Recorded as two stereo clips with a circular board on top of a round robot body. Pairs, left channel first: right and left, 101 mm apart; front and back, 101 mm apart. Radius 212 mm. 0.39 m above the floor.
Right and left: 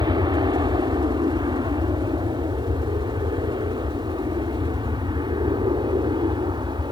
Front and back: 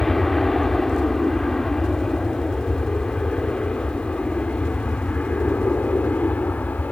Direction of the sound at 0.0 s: 85° left.